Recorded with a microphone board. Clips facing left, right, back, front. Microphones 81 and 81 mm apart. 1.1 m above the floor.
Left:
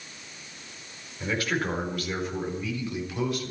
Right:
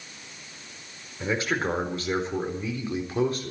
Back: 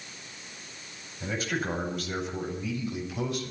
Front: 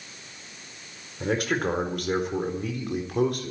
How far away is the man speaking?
About 4.5 m.